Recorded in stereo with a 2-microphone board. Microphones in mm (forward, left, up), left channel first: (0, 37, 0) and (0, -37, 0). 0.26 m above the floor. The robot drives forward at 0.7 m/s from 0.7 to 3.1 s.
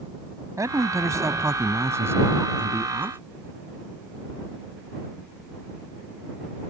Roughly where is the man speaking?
Right.